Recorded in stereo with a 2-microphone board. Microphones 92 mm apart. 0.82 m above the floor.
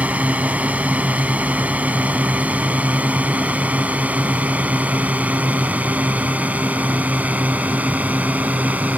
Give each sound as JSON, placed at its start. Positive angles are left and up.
{"t": 0.0, "sound": "a drone", "side_deg": -15}